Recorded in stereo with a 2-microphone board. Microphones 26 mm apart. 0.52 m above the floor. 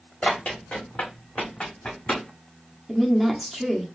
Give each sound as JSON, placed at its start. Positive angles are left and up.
{"t": 0.2, "sound": "running footsteps", "side_deg": 70, "distance_m": 2.5}
{"t": 2.9, "sound": "a woman speaking", "side_deg": 0, "distance_m": 1.2}